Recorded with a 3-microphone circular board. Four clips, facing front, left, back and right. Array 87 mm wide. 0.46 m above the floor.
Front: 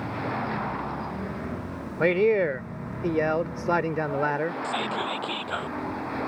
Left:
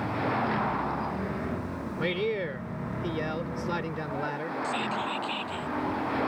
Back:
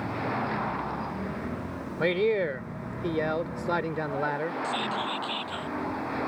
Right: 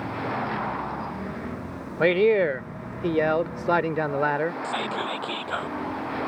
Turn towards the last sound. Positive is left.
turn(degrees=-60)